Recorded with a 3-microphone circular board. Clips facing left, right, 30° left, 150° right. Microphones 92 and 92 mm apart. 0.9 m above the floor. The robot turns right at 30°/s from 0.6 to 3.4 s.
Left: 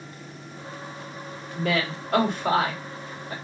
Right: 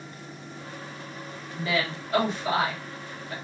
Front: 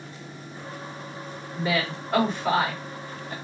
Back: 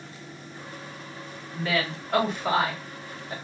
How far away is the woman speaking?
About 1.6 m.